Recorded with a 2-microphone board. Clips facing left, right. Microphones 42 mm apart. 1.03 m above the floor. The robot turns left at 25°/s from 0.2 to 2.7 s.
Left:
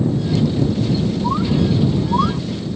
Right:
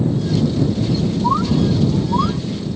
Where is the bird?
20° right (ahead or behind); by 2.4 s 10° left (ahead or behind).